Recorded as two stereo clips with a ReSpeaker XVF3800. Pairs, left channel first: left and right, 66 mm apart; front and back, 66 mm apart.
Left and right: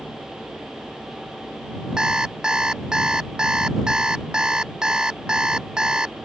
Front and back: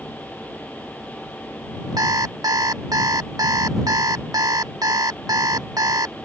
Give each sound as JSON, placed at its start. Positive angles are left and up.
{"t": 2.0, "sound": "an alarm clock", "azimuth_deg": -165}